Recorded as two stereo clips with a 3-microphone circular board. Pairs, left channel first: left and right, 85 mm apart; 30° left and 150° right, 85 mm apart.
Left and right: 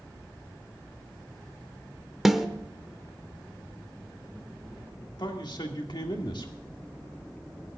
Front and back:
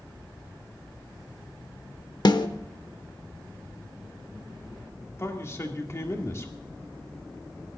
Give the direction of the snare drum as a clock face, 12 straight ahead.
12 o'clock.